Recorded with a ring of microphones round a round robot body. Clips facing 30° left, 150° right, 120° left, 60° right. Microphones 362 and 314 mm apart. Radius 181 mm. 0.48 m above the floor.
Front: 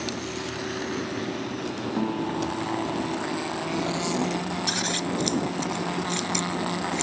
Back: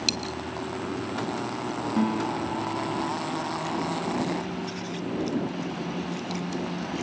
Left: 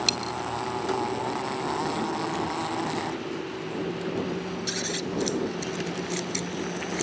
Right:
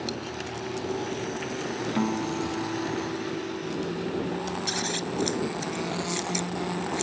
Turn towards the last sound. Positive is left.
turn(degrees=15)